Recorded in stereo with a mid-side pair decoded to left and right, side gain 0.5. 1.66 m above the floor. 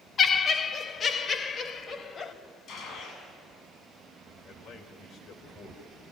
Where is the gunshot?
65° left, 7 m.